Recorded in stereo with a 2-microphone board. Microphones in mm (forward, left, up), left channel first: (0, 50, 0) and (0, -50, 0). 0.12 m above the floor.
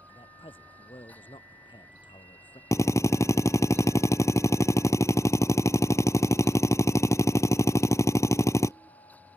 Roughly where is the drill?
Left.